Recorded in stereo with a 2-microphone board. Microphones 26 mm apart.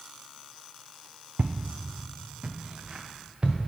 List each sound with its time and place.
1.4 s footsteps: 70° right (ahead or behind), 0.6 m; by 3.6 s 30° right (ahead or behind), 1.5 m